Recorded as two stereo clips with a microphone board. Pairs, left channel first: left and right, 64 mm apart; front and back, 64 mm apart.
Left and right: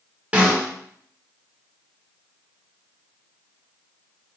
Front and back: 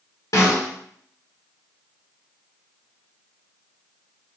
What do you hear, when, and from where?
0.3 s a snare drum: 20° right, 1.4 m